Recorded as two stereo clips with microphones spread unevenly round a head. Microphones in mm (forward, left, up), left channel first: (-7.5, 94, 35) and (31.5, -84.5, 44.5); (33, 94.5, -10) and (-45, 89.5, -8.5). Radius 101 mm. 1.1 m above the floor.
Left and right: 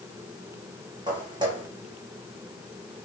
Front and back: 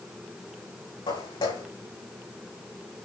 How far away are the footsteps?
About 4 m.